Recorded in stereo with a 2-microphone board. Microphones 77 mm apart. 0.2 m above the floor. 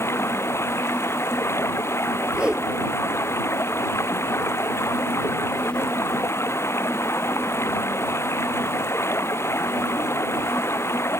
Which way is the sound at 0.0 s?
35° left (ahead or behind).